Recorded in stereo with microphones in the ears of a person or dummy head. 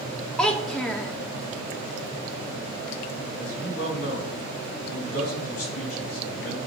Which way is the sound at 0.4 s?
5° left (ahead or behind).